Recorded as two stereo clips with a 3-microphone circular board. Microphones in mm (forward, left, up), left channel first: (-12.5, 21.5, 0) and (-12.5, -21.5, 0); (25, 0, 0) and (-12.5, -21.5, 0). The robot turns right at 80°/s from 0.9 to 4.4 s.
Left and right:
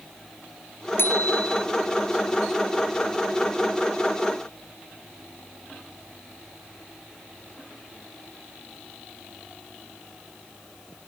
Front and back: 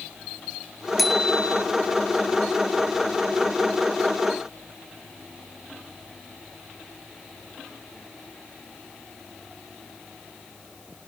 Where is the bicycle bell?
120° left; by 1.6 s 170° left.